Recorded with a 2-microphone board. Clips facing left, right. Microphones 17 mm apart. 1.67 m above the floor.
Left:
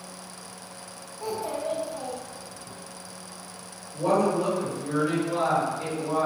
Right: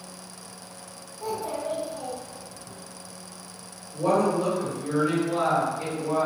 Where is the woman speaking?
20° right (ahead or behind), 1.3 m.